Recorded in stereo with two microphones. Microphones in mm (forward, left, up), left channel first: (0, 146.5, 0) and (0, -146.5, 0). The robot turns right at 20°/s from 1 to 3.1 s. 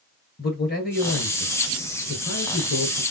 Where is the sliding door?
No sliding door in this recording.